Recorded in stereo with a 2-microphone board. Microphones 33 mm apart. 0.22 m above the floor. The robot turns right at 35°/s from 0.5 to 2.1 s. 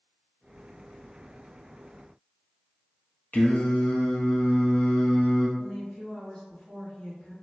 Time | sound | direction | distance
3.3 | singing | 60° left (ahead or behind) | 0.7 m
5.6 | a woman speaking | 30° left (ahead or behind) | 1.9 m